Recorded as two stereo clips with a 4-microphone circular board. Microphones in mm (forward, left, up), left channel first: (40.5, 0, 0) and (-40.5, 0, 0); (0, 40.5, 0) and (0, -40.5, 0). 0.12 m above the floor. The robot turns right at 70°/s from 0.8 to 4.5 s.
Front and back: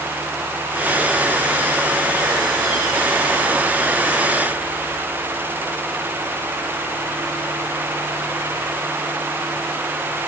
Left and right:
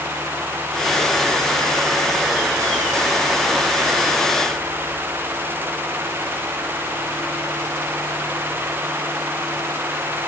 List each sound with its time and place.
Only background noise.